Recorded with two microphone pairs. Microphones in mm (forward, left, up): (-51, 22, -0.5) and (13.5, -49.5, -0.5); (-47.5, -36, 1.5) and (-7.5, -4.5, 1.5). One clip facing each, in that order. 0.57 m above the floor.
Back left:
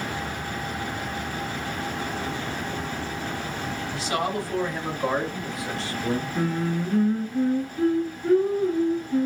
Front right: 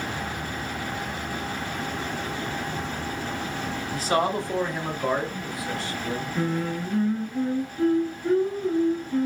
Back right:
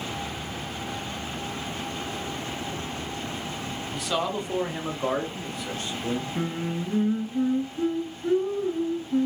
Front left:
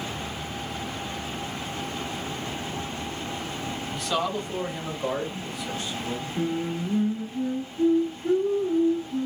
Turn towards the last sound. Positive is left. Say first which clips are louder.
# back left 1 dB, front left 2 dB
turn(degrees=-150)